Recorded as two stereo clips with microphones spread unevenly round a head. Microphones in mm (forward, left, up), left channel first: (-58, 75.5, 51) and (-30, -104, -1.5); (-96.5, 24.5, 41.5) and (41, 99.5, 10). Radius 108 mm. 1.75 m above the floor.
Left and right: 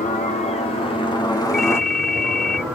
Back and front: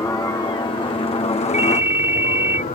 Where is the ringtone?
115° left.